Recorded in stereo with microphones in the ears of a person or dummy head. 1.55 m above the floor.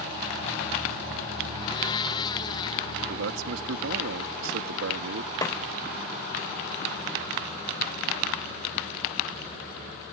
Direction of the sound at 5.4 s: 20° left (ahead or behind).